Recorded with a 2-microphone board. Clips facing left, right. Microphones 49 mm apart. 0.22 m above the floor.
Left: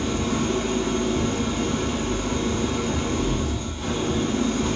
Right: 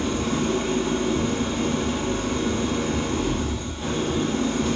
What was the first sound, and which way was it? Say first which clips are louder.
An engine running: even; 5° right (ahead or behind).